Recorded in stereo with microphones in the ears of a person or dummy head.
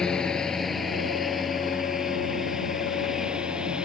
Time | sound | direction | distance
0.0 | a lawn mower | 5° left (ahead or behind) | ?